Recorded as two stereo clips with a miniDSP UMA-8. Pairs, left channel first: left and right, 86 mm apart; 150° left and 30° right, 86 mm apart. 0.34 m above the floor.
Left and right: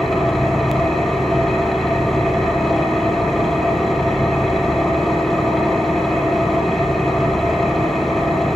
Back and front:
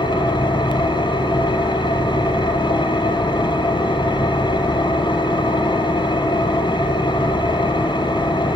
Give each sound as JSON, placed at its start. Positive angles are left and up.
{"t": 0.0, "sound": "an engine running", "azimuth_deg": 180, "distance_m": 3.0}